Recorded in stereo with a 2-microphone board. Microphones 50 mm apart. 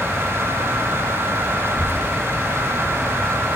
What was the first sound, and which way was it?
A child speaking, 45° right (ahead or behind).